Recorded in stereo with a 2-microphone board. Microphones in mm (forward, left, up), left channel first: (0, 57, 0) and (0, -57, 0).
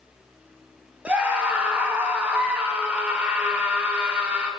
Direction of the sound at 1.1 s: 10° right (ahead or behind).